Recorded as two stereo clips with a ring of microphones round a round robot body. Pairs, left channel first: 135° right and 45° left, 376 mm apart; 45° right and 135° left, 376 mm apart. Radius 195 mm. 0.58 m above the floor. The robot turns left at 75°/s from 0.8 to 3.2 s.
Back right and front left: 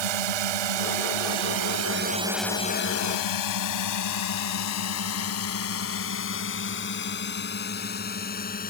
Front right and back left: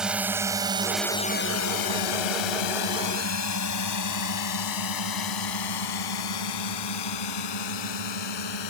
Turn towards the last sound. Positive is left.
turn(degrees=-65)